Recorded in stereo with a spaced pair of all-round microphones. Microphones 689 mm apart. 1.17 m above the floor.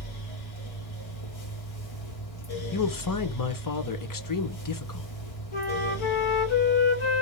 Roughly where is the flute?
Left.